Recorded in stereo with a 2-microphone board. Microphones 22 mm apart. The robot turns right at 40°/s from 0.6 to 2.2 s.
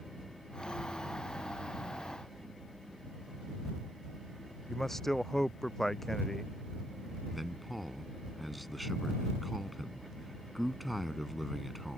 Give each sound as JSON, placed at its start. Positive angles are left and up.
{"t": 4.7, "sound": "a man speaking", "side_deg": 20}
{"t": 7.3, "sound": "a man speaking", "side_deg": 5}